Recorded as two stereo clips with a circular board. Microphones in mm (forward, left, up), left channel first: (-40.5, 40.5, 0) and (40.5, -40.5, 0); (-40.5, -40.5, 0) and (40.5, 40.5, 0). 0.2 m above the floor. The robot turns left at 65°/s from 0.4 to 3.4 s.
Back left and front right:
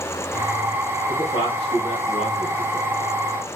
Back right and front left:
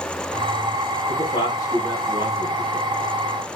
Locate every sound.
1.1 s a man speaking: 165° right, 6 m; by 3.0 s 70° left, 6 m